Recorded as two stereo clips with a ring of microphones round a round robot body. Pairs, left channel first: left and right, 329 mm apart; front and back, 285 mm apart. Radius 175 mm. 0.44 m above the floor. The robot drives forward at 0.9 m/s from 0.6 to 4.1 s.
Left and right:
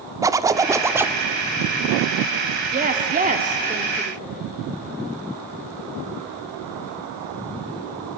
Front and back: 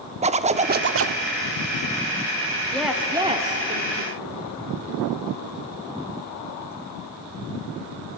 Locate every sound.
0.2 s a zipper: 155° right, 0.7 m; by 1.2 s 175° right, 1.0 m
2.7 s a woman speaking: 75° right, 1.3 m; by 4.4 s 155° right, 1.7 m